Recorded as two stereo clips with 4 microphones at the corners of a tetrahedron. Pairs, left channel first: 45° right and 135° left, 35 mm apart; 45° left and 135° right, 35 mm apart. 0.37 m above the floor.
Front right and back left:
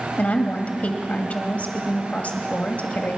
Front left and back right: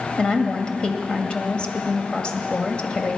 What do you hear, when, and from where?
0.2 s a woman speaking: 10° right, 1.8 m